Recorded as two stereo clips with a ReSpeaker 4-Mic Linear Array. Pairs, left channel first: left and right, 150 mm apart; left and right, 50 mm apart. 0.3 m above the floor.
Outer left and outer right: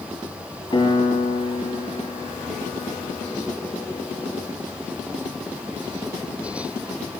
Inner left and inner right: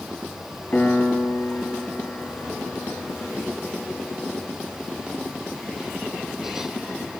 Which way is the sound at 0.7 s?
35° left (ahead or behind).